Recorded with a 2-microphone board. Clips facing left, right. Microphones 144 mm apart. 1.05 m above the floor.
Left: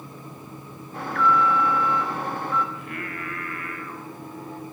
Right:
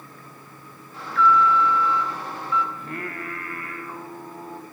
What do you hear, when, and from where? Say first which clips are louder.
0.9 s an alarm: right 2 dB; 55° left (ahead or behind), 1.0 m
2.8 s singing: right 1 dB; 35° right (ahead or behind), 1.2 m